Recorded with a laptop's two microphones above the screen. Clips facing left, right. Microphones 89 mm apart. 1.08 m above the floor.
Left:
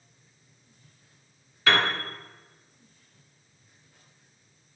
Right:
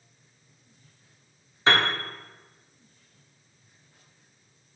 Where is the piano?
25° right (ahead or behind), 1.2 m.